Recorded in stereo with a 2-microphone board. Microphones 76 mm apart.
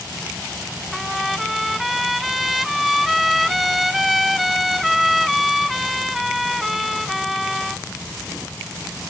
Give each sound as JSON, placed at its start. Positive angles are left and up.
{"t": 0.9, "sound": "a trumpet", "side_deg": 0}